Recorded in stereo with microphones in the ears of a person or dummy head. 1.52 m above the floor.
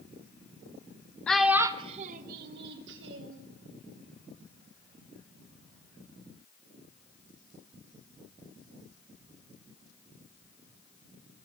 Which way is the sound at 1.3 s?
5° left (ahead or behind).